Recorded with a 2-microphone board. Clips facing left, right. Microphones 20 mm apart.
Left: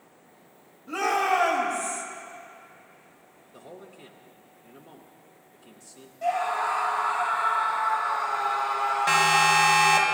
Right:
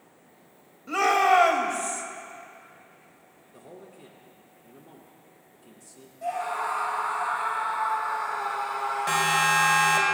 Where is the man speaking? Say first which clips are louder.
Left 1 dB; 20° left (ahead or behind), 1.1 m.